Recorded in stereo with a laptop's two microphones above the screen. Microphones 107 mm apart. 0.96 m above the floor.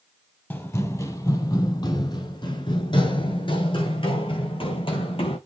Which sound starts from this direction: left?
Running footsteps, at 0.5 s.